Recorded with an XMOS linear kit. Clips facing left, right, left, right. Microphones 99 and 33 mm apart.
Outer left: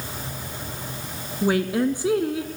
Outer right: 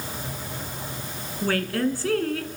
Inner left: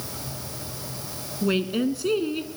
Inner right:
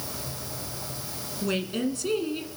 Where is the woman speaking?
15° left (ahead or behind), 1.1 m.